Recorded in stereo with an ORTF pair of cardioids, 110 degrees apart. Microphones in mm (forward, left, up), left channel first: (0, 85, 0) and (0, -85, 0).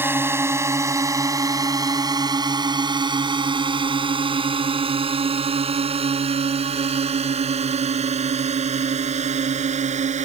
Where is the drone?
15° right; by 10.3 s 45° right.